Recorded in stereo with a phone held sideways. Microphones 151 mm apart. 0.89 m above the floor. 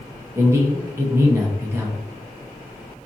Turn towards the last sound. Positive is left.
turn(degrees=-15)  # may be behind; listen again after turning